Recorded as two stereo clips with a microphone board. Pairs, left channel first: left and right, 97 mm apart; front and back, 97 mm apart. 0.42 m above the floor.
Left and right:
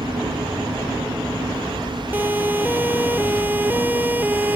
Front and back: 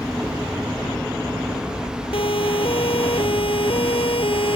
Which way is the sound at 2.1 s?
20° right.